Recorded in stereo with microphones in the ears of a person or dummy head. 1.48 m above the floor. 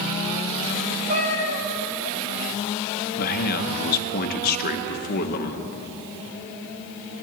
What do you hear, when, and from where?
1.1 s a cat meowing: 35° right (ahead or behind), 1.1 m
3.2 s a man speaking: 55° left (ahead or behind), 0.8 m